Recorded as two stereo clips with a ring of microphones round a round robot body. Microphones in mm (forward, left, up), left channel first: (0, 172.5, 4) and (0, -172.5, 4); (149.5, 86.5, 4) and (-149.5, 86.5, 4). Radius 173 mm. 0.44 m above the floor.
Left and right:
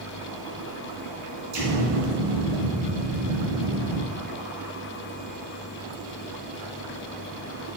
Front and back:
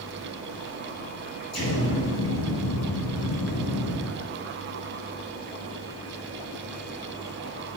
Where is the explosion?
50° right, 2.5 m.